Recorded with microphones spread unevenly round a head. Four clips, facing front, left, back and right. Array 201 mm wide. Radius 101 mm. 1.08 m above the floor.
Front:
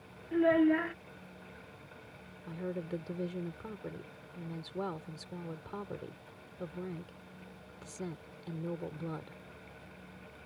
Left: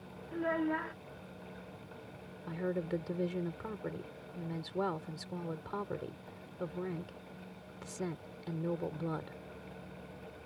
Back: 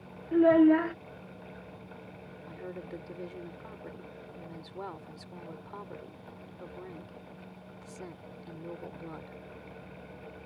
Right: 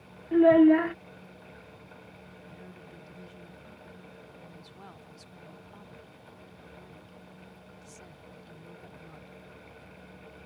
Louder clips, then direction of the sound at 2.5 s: Left 17 dB, front 4 dB; 60° left.